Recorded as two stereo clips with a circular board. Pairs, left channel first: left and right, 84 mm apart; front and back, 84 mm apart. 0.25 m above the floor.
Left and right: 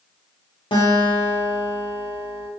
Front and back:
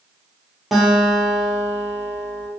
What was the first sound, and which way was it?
A guitar, 90° left.